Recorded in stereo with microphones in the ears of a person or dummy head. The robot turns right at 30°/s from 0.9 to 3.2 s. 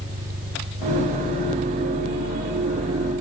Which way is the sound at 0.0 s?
50° right.